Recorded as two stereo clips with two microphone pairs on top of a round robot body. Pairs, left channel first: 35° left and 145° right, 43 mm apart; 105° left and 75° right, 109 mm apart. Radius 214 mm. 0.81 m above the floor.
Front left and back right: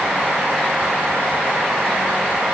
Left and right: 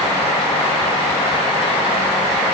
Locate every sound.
Only background noise.